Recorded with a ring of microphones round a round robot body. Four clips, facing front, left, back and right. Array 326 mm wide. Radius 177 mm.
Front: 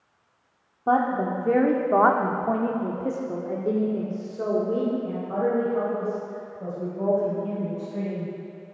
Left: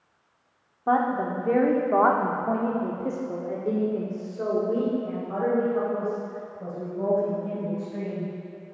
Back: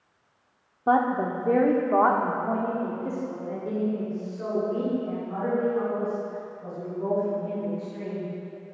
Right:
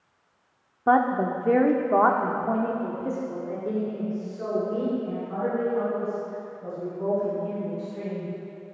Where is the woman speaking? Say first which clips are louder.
Right 2 dB, even; 105° right, 1.2 m; by 8.3 s 40° left, 3.5 m.